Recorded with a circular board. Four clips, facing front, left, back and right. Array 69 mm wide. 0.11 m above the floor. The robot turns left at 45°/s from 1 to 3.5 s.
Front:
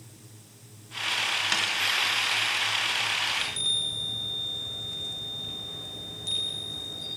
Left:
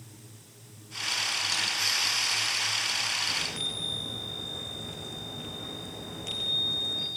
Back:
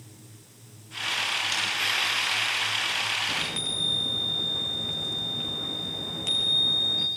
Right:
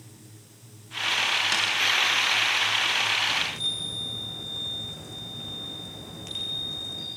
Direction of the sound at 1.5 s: 35° right.